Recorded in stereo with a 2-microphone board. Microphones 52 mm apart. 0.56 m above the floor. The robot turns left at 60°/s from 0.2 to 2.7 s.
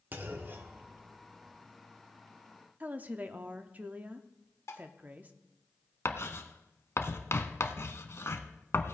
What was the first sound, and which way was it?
A clunk, 35° right (ahead or behind).